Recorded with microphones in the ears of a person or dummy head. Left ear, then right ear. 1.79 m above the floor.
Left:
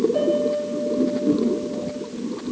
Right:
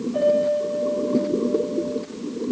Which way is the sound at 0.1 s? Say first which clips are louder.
Right 2 dB; centre (ahead or behind).